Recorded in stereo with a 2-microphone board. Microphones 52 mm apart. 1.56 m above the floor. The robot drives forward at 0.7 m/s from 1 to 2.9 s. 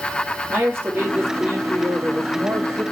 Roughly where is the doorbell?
No doorbell in this recording.